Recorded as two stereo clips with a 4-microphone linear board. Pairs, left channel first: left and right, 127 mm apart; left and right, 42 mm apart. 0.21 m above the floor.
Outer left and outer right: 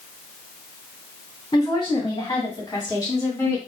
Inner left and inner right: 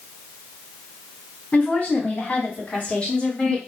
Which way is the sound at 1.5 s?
40° left (ahead or behind).